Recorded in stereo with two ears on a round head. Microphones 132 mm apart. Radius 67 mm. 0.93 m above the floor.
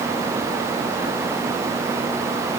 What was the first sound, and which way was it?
Only background noise.